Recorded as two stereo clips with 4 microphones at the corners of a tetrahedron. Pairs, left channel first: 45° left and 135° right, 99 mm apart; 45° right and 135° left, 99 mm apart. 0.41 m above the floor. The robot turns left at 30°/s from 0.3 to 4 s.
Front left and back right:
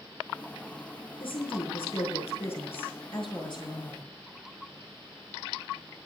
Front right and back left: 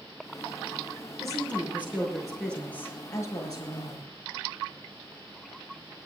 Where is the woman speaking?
75° left, 6 m; by 4.1 s 10° right, 6 m.